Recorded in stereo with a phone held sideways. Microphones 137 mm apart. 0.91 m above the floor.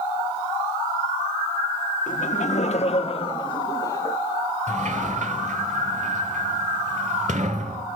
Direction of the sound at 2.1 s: 60° left (ahead or behind).